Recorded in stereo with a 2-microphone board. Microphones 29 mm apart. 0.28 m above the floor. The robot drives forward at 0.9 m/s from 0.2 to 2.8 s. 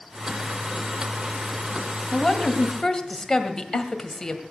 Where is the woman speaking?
15° left (ahead or behind), 1.9 m; by 4.4 s 20° left (ahead or behind), 1.6 m.